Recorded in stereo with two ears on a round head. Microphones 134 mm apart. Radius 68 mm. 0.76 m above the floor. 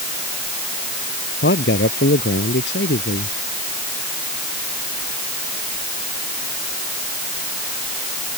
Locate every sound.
1.4 s a man speaking: 85° left